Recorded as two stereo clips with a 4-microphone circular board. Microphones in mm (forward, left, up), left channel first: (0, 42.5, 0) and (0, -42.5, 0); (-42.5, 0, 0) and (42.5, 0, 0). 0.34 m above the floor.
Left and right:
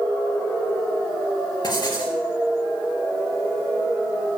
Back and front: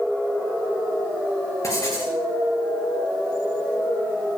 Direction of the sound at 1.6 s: 130° left.